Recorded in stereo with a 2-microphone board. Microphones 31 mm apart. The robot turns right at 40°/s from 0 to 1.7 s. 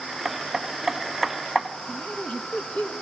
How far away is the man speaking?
About 1.6 m.